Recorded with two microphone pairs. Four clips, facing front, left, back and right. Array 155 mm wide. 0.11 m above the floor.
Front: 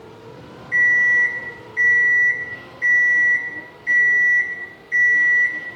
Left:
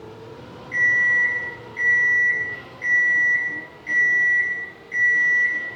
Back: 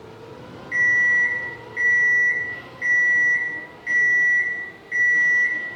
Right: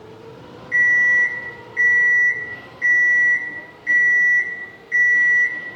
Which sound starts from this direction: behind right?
An alarm clock, at 0.7 s.